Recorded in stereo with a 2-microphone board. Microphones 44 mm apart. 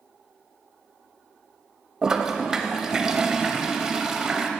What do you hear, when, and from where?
2.0 s a toilet flushing: 15° right (ahead or behind), 0.6 m